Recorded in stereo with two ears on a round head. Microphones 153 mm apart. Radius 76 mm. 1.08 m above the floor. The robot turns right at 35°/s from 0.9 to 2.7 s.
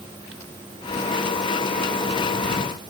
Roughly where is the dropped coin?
No dropped coin in this recording.